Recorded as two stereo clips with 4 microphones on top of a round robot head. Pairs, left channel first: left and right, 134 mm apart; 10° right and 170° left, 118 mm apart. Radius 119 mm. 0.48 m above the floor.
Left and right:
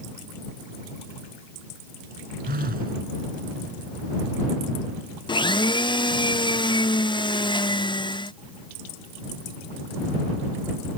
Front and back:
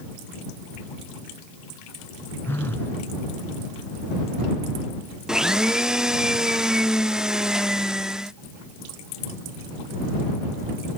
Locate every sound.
2.5 s a phone buzzing: 85° right
5.3 s a blender: 90° left